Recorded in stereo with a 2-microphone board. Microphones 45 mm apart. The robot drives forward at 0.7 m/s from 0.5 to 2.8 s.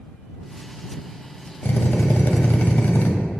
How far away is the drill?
About 1.5 m.